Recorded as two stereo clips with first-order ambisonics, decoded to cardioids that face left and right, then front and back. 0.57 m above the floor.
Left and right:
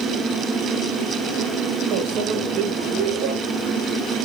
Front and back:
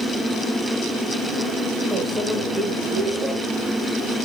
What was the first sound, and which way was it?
A microwave, 100° right.